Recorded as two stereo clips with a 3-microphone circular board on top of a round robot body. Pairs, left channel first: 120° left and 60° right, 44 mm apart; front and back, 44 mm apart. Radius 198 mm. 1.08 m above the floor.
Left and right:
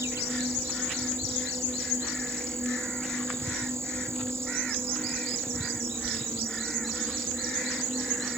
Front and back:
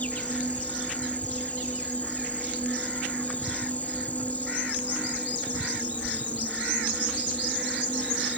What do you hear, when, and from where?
0.0 s an insect: 55° right